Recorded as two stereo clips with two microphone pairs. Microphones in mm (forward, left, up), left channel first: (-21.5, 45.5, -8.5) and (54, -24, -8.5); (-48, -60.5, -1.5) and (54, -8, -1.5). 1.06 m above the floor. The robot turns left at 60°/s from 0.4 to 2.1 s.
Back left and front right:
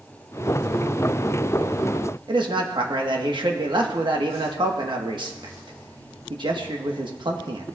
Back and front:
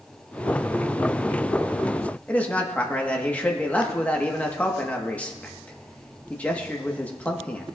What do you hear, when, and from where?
2.3 s a man speaking: 75° right, 1.3 m